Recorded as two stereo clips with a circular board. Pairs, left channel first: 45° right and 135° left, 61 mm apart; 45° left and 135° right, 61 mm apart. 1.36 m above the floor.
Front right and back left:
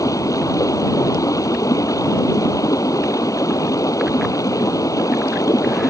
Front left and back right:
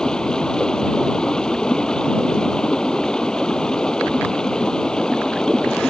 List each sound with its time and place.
0.0 s running water: 30° right